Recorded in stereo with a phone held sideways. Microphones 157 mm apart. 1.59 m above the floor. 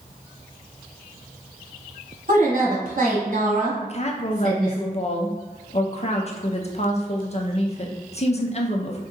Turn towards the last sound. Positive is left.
turn(degrees=45)  # may be behind; listen again after turning